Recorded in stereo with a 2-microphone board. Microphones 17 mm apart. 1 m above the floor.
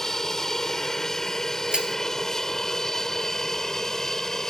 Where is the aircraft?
25° left (ahead or behind).